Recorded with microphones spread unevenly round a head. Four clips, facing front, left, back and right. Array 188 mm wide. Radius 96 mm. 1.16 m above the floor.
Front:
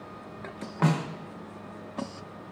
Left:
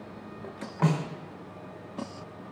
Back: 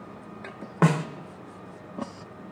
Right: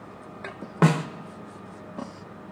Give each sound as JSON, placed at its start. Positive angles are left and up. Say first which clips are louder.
{"t": 0.8, "sound": "a snare drum", "louder": "right 5 dB, back 3 dB", "azimuth_deg": -130, "distance_m": 0.7}